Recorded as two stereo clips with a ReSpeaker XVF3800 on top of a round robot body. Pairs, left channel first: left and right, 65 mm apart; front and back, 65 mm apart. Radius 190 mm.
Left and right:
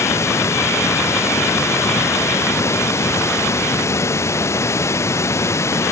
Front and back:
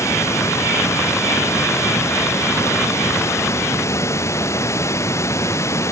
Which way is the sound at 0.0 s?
45° left.